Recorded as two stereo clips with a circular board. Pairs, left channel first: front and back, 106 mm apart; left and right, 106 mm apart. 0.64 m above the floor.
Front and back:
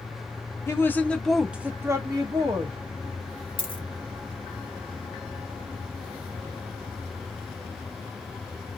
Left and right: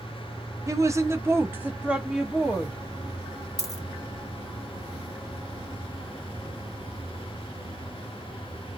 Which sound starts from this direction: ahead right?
A woman speaking, at 0.7 s.